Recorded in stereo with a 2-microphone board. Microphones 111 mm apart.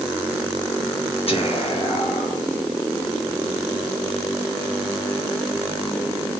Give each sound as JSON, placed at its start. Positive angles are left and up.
{"t": 1.3, "sound": "whispering", "side_deg": 55, "distance_m": 1.1}